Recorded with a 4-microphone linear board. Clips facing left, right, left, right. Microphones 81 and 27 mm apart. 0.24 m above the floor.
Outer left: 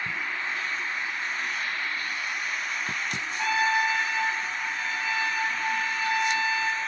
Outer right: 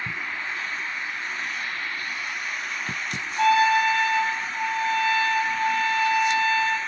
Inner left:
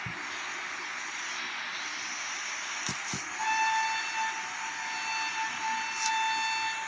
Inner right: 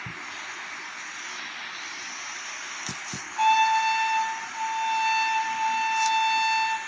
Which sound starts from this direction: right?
A trumpet, at 3.4 s.